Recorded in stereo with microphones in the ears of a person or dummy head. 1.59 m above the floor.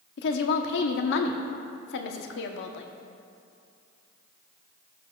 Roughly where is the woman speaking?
Left.